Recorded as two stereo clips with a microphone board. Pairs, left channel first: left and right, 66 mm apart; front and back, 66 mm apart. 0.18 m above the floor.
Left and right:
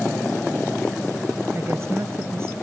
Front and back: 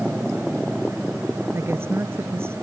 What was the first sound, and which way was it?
A woman speaking, 135° right.